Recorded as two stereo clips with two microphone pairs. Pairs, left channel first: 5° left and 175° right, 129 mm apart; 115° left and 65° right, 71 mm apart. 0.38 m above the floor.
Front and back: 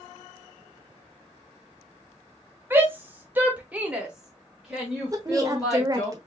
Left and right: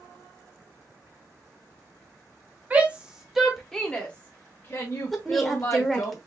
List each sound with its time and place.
2.7 s a shout: 115° right, 1.2 m; by 6.1 s 90° left, 1.9 m
5.1 s a woman speaking: 165° right, 0.8 m